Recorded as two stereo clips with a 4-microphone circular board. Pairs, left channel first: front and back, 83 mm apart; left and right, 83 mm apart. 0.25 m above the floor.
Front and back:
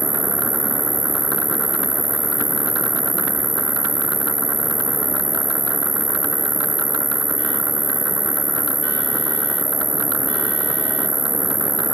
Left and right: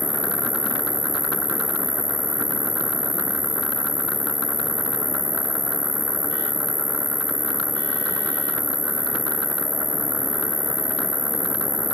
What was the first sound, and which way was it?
An insect, 90° left.